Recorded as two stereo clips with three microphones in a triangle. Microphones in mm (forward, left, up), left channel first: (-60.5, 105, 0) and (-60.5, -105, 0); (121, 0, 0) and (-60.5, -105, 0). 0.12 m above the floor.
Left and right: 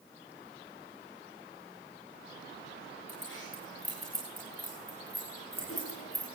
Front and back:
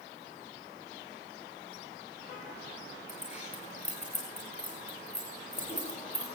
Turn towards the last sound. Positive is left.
turn(degrees=90)